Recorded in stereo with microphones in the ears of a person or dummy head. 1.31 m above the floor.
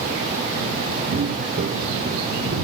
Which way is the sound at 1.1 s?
45° right (ahead or behind).